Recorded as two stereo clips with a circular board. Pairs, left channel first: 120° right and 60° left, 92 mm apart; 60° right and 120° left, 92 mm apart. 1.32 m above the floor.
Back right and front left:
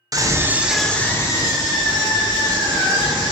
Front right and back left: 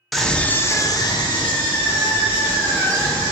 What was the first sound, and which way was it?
A scream, 30° left.